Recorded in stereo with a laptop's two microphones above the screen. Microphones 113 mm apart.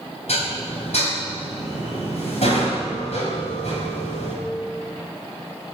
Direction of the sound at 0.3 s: 75° left (ahead or behind).